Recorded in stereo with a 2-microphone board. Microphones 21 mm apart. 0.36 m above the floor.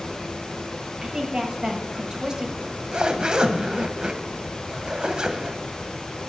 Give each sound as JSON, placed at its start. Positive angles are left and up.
{"t": 1.0, "sound": "a woman speaking", "side_deg": -25, "distance_m": 1.5}
{"t": 2.6, "sound": "a zipper", "side_deg": -30, "distance_m": 0.7}